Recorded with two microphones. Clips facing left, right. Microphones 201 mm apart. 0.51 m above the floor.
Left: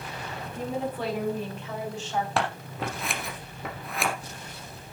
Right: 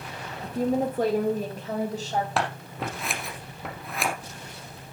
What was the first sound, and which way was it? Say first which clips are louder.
A woman speaking: right 7 dB; 30° right (ahead or behind).